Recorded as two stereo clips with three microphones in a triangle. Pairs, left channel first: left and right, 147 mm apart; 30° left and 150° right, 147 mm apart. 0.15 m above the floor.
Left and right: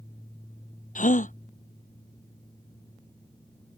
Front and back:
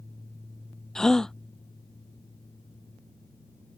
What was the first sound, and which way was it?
A gasp, 115° left.